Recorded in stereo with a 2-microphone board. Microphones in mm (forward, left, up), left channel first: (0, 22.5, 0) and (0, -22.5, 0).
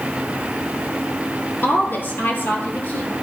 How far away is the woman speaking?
About 3.5 m.